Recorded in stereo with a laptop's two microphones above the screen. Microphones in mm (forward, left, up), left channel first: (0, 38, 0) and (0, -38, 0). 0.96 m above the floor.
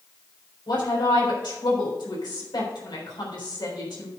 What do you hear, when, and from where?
0.7 s a woman speaking: 80° left, 3.5 m